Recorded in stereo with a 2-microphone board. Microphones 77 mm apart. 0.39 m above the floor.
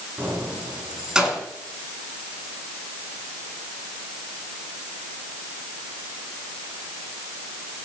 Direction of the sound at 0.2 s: 25° right (ahead or behind).